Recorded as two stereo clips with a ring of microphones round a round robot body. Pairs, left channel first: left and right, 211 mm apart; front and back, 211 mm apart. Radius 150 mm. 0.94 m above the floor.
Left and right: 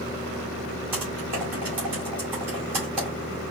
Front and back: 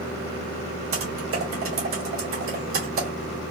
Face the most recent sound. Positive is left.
turn(degrees=-175)